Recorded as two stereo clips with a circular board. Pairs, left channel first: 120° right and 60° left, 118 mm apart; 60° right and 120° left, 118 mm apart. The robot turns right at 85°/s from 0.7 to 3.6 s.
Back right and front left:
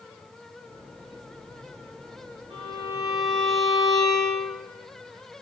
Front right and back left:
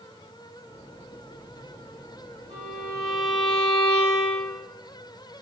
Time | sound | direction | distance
2.5 | a violin | 90° left | 1.7 m